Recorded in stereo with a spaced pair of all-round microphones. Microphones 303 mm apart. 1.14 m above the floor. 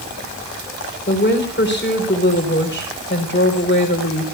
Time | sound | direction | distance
1.1 | a woman speaking | 35° left (ahead or behind) | 4 m